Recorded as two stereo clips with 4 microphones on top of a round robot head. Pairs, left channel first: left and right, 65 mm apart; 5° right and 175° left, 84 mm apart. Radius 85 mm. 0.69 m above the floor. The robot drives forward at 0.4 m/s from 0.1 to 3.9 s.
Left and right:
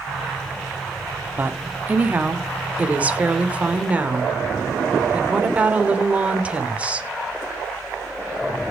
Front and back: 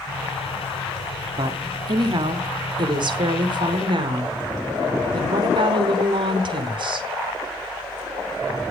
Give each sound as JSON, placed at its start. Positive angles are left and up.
{"t": 1.4, "sound": "a woman speaking", "azimuth_deg": -150, "distance_m": 2.0}